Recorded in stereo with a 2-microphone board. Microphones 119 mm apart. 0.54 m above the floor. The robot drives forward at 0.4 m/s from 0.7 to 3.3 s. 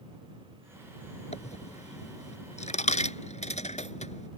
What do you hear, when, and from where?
1.3 s a dropped coin: 80° left; by 4.3 s 85° left